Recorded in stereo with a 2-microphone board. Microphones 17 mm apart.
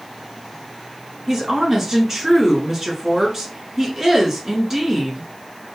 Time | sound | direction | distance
1.3 | a woman speaking | 30° right (ahead or behind) | 1.6 m